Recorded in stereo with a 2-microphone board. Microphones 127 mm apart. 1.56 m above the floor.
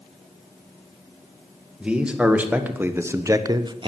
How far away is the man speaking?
About 1.9 m.